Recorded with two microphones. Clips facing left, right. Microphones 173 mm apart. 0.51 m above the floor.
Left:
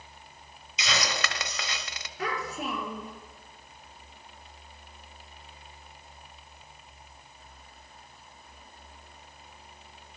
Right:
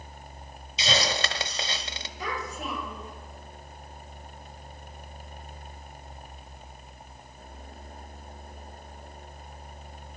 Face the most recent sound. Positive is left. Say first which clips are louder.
# left 2 dB
turn(degrees=65)  # may be behind; listen again after turning